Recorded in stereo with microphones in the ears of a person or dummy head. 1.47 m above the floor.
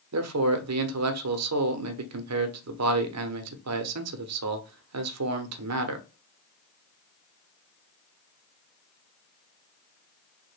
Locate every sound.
0.1 s a man speaking: 75° right (ahead or behind), 0.7 m